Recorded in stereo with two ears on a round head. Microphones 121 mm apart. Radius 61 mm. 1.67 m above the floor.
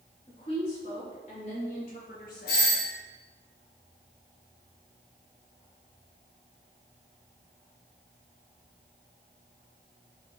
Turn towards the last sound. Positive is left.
turn(degrees=80)